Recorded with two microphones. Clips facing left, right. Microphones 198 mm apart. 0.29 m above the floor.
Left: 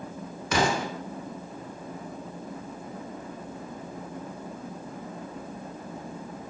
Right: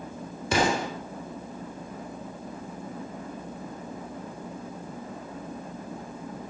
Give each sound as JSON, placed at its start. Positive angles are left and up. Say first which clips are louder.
{"t": 0.5, "sound": "an explosion", "louder": "right 1 dB", "side_deg": -30, "distance_m": 0.7}